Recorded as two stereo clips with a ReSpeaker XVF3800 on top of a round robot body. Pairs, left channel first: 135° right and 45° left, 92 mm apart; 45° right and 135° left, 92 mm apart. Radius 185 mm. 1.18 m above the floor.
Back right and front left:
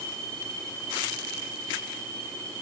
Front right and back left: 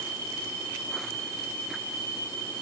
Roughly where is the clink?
No clink in this recording.